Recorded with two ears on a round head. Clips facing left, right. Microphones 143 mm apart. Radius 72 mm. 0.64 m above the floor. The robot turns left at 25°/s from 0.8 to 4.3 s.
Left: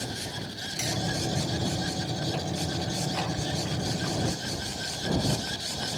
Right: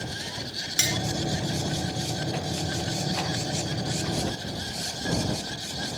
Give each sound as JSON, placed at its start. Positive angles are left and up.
{"t": 0.8, "sound": "cutlery clinking", "side_deg": -90}